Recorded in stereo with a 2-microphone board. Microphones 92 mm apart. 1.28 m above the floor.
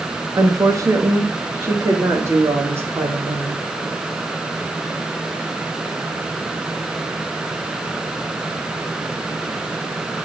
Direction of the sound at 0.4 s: 40° right (ahead or behind).